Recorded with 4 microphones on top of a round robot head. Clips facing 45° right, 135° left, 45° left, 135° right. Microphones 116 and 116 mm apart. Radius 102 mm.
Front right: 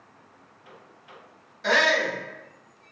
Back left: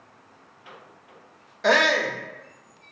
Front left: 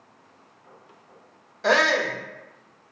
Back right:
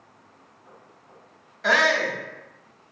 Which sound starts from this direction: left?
A shout, at 1.6 s.